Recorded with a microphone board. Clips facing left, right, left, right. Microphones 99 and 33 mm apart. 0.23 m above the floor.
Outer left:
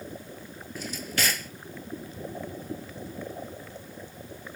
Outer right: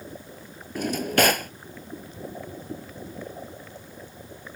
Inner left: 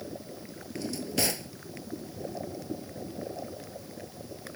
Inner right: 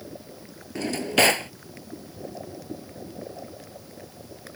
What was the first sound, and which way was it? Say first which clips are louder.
A drawer: outer right 11 dB, inner right 10 dB; 60° right (ahead or behind).